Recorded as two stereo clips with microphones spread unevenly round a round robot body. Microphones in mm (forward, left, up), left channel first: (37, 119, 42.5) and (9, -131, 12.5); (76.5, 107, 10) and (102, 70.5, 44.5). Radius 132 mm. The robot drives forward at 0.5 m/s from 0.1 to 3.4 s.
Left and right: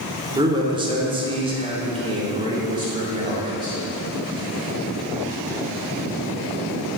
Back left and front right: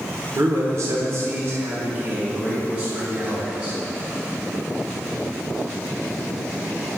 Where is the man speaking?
60° right, 1.0 m; by 3.8 s 160° right, 1.6 m.